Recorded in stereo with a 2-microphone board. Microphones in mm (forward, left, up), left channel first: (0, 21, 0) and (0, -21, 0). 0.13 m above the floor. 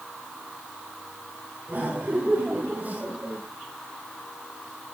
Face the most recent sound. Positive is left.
turn(degrees=-30)  # may be behind; listen again after turning